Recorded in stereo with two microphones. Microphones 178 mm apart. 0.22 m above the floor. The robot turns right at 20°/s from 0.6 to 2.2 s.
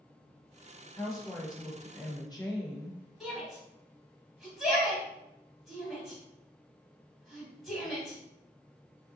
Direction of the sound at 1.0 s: 20° left (ahead or behind).